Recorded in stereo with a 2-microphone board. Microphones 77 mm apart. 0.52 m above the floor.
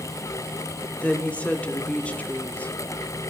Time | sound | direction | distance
1.0 | a woman speaking | 15° left (ahead or behind) | 1.0 m